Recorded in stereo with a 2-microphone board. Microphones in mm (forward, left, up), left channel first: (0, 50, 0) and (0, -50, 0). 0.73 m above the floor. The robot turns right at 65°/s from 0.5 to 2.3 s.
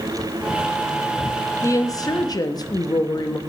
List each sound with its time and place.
1.6 s a woman speaking: 45° left, 0.6 m; by 3.4 s 90° left, 0.6 m